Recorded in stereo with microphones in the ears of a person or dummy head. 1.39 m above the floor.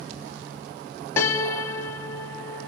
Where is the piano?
20° left (ahead or behind), 0.9 m.